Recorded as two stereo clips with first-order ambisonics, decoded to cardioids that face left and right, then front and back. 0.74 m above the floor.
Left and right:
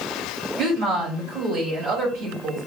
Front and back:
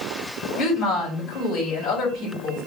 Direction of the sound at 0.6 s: 55° right.